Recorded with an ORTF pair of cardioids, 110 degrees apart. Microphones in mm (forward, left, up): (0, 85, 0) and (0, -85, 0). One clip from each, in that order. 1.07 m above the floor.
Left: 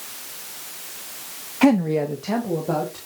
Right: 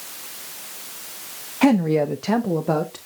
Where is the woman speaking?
10° left, 0.7 m; by 3.0 s 50° right, 1.7 m.